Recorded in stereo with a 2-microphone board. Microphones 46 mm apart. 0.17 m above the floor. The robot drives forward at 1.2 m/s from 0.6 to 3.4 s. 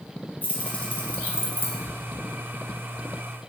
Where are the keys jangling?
35° left (ahead or behind), 3.5 m; by 1.8 s 50° left (ahead or behind), 2.5 m.